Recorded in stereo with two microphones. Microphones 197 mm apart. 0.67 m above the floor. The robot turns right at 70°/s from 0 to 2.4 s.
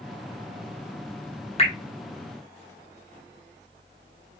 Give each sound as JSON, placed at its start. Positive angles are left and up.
{"t": 1.6, "sound": "dripping", "side_deg": 35, "distance_m": 1.0}